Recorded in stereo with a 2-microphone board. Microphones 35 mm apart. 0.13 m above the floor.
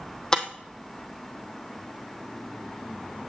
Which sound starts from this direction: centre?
Breaking glass, at 0.3 s.